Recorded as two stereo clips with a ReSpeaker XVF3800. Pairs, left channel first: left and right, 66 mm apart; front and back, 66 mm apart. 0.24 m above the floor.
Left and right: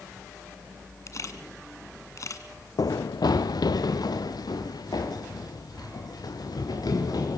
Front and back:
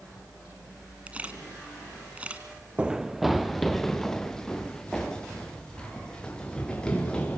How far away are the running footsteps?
About 0.8 m.